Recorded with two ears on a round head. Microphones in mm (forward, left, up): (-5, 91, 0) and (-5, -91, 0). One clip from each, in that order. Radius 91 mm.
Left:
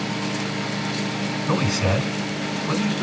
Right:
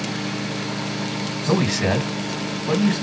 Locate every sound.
1.5 s a man speaking: 65° right (ahead or behind), 3.5 m